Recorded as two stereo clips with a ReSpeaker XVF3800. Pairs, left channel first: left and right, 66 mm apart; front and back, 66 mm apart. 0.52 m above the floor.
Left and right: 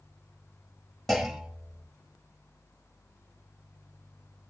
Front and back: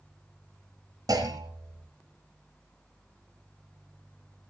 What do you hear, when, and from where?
1.1 s a clunk: 175° left, 4 m